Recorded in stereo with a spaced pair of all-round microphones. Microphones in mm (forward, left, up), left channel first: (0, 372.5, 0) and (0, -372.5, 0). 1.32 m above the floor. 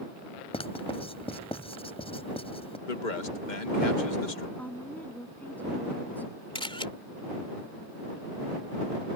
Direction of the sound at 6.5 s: 5° left (ahead or behind).